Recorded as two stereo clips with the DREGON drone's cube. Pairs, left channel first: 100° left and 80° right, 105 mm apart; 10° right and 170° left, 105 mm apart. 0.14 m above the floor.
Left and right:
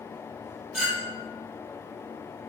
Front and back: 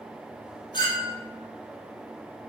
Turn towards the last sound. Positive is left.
turn(degrees=5)